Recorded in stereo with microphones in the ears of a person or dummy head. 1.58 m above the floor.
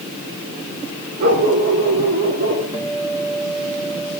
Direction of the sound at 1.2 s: 50° right (ahead or behind).